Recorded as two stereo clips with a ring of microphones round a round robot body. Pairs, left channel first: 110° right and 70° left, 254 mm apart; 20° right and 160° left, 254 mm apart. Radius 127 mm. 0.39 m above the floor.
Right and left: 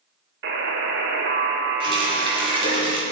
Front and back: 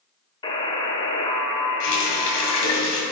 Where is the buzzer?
45° left, 1.2 m.